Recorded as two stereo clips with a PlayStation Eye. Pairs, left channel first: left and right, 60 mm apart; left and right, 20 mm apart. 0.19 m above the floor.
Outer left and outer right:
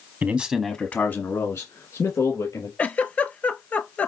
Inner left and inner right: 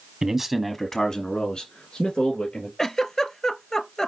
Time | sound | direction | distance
0.2 | a man speaking | 30° right (ahead or behind) | 1.1 m
2.8 | a giggle | 30° left (ahead or behind) | 0.7 m